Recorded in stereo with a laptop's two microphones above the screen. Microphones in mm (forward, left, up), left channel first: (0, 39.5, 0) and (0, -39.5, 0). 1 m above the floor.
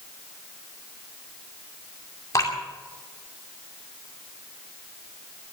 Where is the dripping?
45° left (ahead or behind), 2.5 m.